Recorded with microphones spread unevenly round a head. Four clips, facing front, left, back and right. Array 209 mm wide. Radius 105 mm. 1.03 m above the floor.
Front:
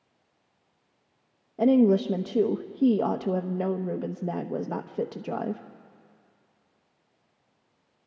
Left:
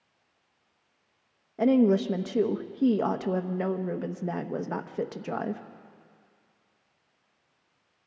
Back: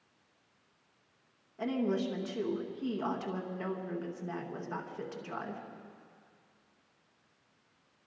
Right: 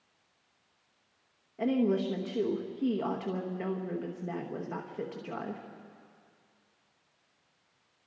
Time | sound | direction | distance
1.6 | a woman speaking | 30° left | 1.1 m